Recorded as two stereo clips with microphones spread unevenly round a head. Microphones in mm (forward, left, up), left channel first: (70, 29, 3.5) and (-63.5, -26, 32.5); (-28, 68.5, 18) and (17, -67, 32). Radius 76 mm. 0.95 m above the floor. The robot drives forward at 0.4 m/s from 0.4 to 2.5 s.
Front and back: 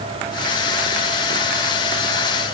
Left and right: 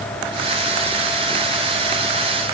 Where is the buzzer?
No buzzer in this recording.